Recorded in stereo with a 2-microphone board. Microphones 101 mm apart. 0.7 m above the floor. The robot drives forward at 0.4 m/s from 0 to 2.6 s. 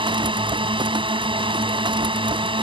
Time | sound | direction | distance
0.0 | a drone | 50° right (ahead or behind) | ?